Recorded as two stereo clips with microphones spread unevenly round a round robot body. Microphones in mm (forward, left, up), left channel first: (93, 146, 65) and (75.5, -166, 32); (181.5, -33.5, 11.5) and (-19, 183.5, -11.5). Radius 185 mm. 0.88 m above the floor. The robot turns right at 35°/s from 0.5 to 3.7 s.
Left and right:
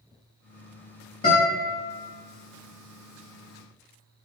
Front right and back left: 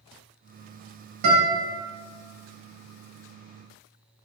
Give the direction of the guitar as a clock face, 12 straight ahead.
7 o'clock.